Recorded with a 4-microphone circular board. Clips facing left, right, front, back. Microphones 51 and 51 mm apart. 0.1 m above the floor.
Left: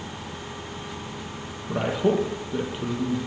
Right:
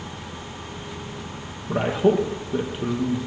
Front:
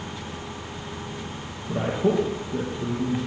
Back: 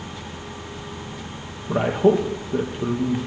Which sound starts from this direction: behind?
A man speaking, at 1.7 s.